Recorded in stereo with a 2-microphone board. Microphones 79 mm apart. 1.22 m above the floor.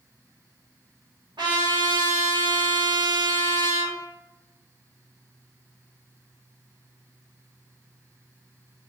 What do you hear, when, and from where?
1.4 s a trumpet: 75° right (ahead or behind), 1.3 m